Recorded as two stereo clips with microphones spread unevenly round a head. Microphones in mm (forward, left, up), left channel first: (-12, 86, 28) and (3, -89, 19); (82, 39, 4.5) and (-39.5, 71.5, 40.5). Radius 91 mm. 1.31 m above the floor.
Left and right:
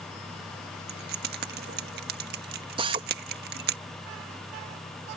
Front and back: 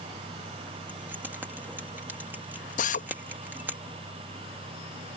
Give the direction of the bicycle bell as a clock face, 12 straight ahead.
I don't hear a bicycle bell.